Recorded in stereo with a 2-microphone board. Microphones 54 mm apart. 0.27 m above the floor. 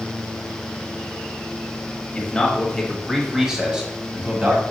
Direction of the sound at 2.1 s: 20° left (ahead or behind).